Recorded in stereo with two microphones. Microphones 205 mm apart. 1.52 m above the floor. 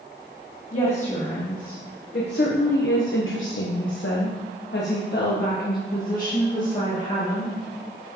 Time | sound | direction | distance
0.7 | a woman speaking | 35° left (ahead or behind) | 1.7 m